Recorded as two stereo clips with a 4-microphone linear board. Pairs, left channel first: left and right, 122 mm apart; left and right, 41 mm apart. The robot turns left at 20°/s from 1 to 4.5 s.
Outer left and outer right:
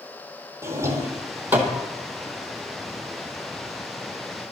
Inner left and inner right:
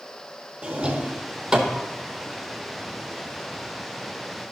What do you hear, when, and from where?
0.6 s a drawer: 25° right (ahead or behind), 1.4 m; by 1.8 s 10° right (ahead or behind), 1.4 m